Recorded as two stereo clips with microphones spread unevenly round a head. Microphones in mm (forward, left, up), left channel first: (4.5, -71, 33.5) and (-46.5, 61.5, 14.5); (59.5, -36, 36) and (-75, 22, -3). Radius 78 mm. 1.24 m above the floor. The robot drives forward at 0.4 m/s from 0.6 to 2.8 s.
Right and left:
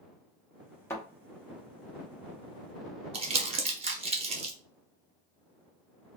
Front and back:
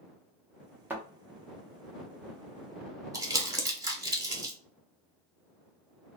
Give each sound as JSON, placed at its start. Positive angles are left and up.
{"t": 0.9, "sound": "a thud", "azimuth_deg": -105, "distance_m": 0.7}
{"t": 3.1, "sound": "crumpling", "azimuth_deg": 115, "distance_m": 0.7}